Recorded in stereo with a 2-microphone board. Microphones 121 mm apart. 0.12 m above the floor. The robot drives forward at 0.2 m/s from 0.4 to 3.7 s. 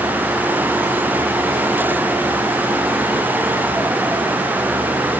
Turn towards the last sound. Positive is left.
No sound to turn to.